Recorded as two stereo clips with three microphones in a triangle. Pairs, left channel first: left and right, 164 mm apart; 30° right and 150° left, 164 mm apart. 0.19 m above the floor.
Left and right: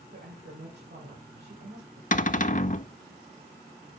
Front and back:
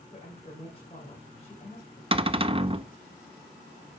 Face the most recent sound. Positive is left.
turn(degrees=105)